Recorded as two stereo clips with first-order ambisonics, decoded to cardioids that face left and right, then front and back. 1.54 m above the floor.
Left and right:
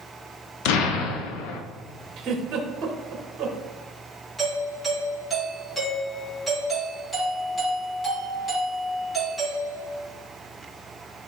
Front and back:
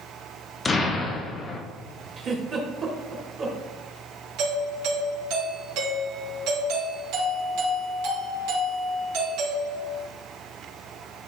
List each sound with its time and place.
0.7 s an explosion: 75° left, 0.9 m
2.2 s a giggle: 125° right, 1.4 m
4.4 s a doorbell: 170° left, 2.5 m